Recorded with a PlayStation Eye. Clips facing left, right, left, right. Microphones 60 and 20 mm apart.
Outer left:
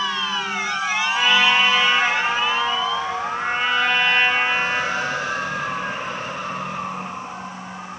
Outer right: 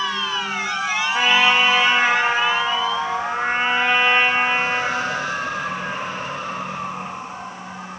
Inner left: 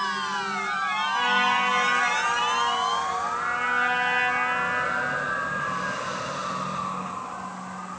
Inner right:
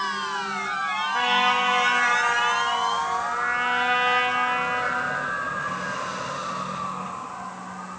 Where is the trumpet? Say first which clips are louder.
Outer right 1 dB, inner right 2 dB; 25° right (ahead or behind), 1.5 m.